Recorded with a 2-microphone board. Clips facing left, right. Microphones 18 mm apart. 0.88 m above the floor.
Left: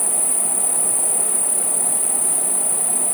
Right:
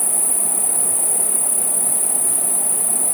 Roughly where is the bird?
No bird in this recording.